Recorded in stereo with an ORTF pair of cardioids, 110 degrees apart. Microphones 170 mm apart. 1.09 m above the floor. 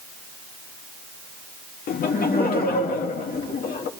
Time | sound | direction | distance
1.9 | laughter | 60° left | 2 m